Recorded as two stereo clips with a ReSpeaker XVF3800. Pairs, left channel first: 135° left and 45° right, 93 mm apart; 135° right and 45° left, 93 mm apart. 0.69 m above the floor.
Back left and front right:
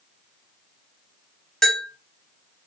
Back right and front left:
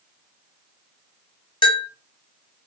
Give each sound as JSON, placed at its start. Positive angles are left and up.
{"t": 1.6, "sound": "a bell", "azimuth_deg": -140, "distance_m": 0.7}